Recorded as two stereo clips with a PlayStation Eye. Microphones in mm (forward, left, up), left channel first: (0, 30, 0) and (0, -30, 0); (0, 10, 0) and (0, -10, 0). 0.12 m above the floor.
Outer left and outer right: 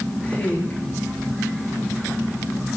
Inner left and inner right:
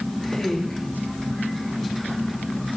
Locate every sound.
0.2 s a woman speaking: 20° left (ahead or behind), 7.5 m